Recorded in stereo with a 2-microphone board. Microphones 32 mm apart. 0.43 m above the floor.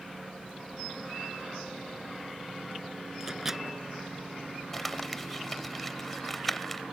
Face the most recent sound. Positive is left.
turn(degrees=5)  # may be behind; listen again after turning